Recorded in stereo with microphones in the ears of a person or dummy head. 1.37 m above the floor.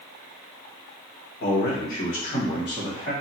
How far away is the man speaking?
About 0.8 m.